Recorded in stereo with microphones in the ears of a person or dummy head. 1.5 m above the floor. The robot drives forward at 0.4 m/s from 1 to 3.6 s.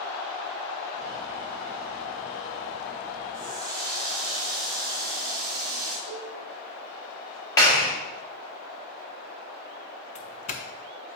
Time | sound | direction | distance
3.3 | a running tap | 40° right (ahead or behind) | 2.5 m
6.1 | a cowbell | 75° left (ahead or behind) | 3 m
7.6 | a clap | 30° left (ahead or behind) | 1.8 m
10.2 | a doorbell | 40° left (ahead or behind) | 0.5 m